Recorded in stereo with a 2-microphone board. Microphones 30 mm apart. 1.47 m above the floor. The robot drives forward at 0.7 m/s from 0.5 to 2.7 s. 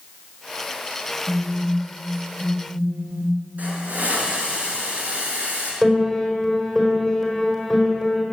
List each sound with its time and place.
1.3 s a phone buzzing: 65° right (ahead or behind), 2 m; by 3.4 s 45° right (ahead or behind), 2.5 m
3.6 s a hiss: 60° right (ahead or behind), 6.5 m
5.8 s a piano: centre (ahead or behind), 4.5 m